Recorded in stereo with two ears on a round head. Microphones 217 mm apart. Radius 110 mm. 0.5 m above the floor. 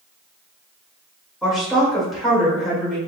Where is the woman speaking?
Centre (ahead or behind), 2.0 m.